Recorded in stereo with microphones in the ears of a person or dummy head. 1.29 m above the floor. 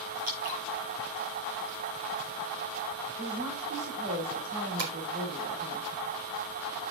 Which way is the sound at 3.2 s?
80° right.